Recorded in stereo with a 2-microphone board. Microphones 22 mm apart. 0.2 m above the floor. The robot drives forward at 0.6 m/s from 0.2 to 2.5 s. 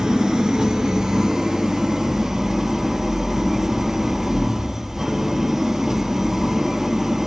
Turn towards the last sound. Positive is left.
turn(degrees=-10)  # may be behind; listen again after turning